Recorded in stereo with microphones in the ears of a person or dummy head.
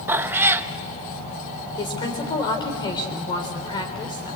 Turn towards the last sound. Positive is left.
turn(degrees=30)  # may be behind; listen again after turning